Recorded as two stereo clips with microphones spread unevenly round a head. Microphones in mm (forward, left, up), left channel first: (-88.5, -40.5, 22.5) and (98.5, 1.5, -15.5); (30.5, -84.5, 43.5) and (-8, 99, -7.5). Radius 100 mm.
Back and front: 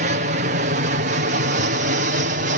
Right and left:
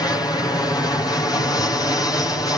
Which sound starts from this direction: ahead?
An aircraft, at 0.0 s.